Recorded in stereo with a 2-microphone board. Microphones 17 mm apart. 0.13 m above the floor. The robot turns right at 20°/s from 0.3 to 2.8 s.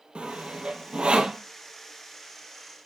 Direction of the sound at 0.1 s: 70° right (ahead or behind).